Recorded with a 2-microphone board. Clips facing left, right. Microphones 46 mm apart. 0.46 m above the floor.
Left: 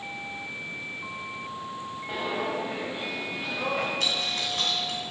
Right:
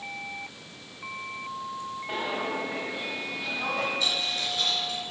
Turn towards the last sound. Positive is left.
turn(degrees=60)  # may be behind; listen again after turning